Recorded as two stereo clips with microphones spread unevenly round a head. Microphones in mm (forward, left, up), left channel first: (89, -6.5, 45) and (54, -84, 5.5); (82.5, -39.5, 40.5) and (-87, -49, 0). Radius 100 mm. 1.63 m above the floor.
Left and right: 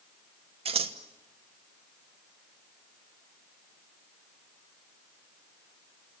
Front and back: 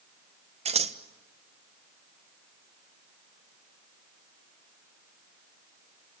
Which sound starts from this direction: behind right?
Scissors, at 0.7 s.